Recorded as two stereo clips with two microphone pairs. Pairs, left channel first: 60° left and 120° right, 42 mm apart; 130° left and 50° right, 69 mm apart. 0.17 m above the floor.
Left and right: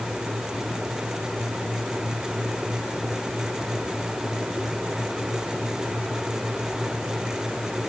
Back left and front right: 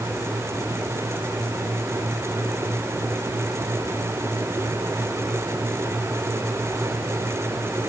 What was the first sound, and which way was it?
Only background noise.